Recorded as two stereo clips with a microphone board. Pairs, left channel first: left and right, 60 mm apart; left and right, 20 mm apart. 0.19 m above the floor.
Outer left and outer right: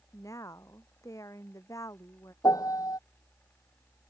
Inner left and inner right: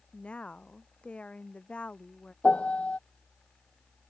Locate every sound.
0.1 s a woman speaking: 70° left (ahead or behind)
2.4 s a piano: 80° left